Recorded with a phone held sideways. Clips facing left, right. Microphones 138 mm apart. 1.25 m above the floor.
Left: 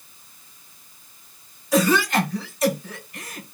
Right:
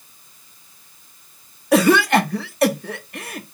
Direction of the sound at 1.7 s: 80° right.